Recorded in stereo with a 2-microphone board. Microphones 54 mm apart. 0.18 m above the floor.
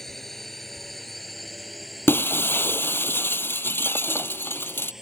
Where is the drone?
5° left (ahead or behind); by 5.0 s 5° right (ahead or behind).